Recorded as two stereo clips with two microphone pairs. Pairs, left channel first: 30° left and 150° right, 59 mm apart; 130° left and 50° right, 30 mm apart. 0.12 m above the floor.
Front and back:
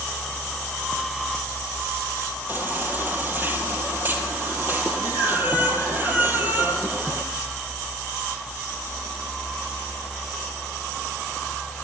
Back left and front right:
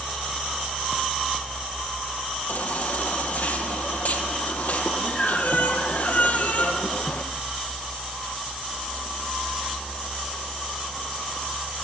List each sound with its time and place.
2.5 s a baby crying: 155° left, 3 m